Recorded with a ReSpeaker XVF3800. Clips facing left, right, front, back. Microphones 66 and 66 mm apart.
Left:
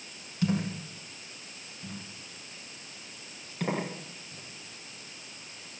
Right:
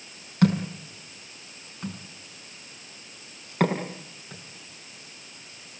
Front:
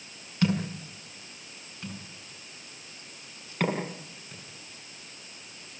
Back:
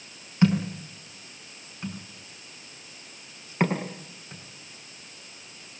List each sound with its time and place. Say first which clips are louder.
0.4 s a thud: right 6 dB, back 4 dB; 110° right, 5.5 m